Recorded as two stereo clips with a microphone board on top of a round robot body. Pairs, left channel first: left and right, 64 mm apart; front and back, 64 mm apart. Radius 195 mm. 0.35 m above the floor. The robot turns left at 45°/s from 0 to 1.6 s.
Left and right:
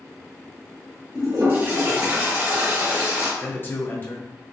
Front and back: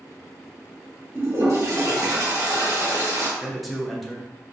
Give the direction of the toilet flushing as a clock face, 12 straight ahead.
4 o'clock.